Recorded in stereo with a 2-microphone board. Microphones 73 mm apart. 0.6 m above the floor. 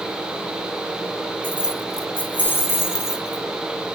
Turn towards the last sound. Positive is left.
turn(degrees=45)  # may be behind; listen again after turning